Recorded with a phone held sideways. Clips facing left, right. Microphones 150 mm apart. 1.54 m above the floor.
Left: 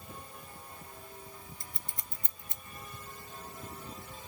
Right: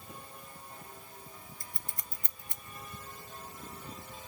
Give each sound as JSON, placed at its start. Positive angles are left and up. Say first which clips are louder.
{"t": 1.6, "sound": "scissors", "louder": "even", "side_deg": 25, "distance_m": 0.6}